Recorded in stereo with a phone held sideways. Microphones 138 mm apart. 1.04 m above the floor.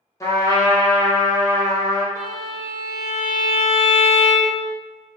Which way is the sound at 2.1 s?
65° right (ahead or behind).